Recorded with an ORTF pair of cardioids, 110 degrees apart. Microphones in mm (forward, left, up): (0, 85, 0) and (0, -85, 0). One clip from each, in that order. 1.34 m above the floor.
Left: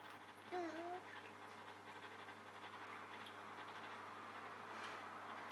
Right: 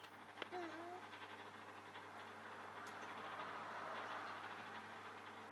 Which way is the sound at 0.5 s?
25° left.